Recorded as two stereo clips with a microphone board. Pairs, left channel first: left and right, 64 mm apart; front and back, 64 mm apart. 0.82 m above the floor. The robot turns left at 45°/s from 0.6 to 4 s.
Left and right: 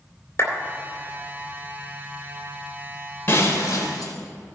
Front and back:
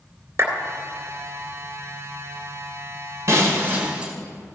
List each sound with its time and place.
0.4 s a clap: 140° left, 2.5 m
3.3 s breaking glass: 145° left, 1.4 m; by 4.1 s 110° left, 1.4 m